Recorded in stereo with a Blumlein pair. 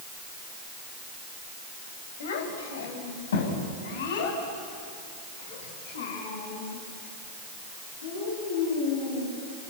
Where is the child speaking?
60° left, 4 m; by 9.7 s 65° left, 10.5 m.